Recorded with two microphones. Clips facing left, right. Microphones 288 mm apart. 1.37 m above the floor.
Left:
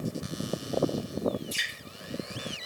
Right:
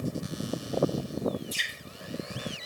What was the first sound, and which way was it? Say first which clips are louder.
Dripping: even; 75° left (ahead or behind).